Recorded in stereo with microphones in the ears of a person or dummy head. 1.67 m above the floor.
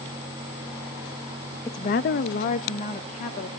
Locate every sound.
1.6 s a woman speaking: 15° left (ahead or behind), 0.6 m; by 3.5 s 35° left (ahead or behind), 1.9 m